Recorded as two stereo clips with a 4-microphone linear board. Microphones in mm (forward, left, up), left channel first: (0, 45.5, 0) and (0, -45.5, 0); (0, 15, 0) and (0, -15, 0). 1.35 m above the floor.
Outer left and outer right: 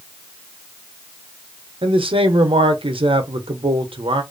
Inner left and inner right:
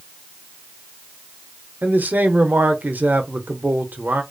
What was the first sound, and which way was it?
A man speaking, 80° right.